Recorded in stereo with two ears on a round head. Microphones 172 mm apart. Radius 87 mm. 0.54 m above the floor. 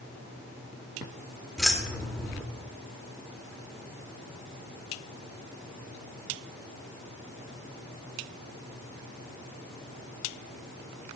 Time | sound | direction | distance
1.6 | keys jangling | centre (ahead or behind) | 0.8 m